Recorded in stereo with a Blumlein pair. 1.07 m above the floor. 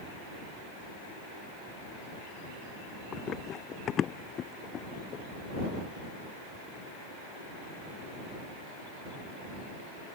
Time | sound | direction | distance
3.1 | running footsteps | 25° left | ?